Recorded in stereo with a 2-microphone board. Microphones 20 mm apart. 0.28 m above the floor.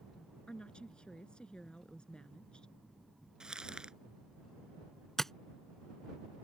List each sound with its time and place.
0.5 s a woman speaking: 65° left (ahead or behind)
3.4 s crumpling: 50° right (ahead or behind)
5.2 s tapping: 20° left (ahead or behind)